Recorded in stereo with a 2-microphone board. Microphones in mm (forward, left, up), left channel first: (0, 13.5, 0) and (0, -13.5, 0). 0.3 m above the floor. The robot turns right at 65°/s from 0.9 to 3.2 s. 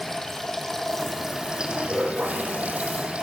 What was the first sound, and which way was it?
Running water, 165° left.